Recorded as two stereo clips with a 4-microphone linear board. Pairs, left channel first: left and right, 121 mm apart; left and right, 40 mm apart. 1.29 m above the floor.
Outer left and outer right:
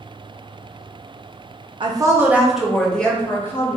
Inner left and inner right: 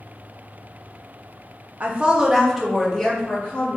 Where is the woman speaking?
40° right (ahead or behind), 0.5 m; by 3.8 s 20° left (ahead or behind), 1.4 m.